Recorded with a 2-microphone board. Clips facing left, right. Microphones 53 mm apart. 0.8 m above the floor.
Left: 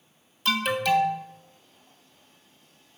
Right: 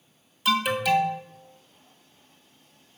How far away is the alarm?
About 1.4 m.